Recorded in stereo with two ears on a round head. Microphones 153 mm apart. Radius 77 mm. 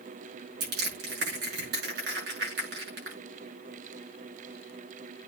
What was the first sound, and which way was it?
Crushing, 65° right (ahead or behind).